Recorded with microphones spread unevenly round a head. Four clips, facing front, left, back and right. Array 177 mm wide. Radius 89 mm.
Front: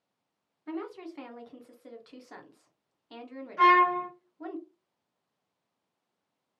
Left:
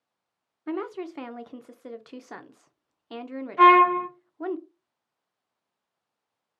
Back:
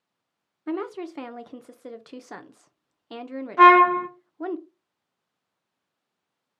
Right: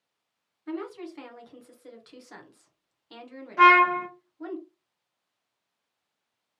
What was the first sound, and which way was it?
A woman speaking, 145° left.